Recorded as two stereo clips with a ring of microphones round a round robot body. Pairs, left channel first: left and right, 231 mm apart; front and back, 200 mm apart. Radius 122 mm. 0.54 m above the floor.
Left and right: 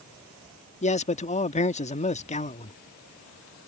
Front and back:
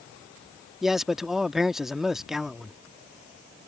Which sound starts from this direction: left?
A man speaking, at 0.8 s.